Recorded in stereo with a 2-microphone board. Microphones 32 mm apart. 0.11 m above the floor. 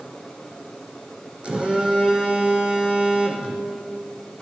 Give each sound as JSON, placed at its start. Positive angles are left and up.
{"t": 1.4, "sound": "a phone buzzing", "side_deg": -35, "distance_m": 1.2}